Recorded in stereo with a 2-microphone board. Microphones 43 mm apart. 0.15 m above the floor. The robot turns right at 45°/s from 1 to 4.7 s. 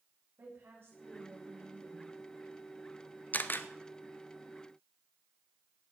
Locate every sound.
0.4 s a woman speaking: 120° right, 8 m; by 2.1 s 70° right, 8 m
3.3 s a camera shutter: 40° left (ahead or behind), 0.8 m; by 3.7 s 50° left (ahead or behind), 0.8 m